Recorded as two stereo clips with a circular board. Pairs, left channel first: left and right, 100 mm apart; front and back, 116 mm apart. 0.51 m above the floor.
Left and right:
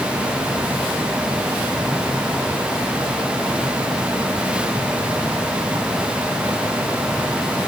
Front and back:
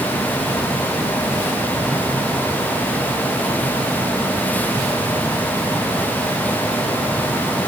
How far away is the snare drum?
No snare drum in this recording.